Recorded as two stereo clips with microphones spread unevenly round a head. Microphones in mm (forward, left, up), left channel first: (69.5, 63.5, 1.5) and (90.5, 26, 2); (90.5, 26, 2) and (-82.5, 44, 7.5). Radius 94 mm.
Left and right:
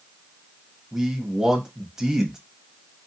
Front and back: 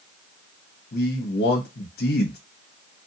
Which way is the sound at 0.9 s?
20° left.